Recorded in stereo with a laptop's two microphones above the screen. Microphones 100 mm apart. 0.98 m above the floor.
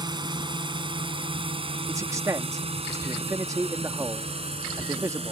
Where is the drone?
50° right (ahead or behind); by 5.3 s 80° right.